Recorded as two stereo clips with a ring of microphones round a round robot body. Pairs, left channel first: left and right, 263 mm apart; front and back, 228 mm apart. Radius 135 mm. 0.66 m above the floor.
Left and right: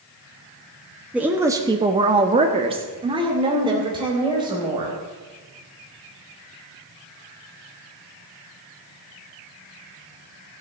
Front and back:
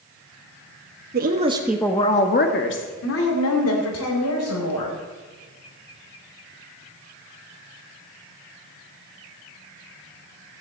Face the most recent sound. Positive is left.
turn(degrees=-15)